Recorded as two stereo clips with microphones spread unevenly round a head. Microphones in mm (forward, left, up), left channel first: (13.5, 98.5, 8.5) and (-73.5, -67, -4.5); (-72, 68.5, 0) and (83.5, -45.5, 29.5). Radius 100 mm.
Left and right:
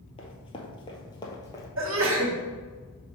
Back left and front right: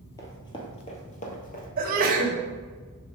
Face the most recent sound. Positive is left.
turn(degrees=-85)